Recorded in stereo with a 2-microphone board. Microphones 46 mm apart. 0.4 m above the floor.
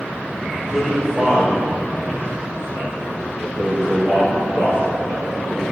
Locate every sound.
0.5 s a man speaking: 5° right (ahead or behind), 2 m; by 5.6 s 70° right (ahead or behind), 5.5 m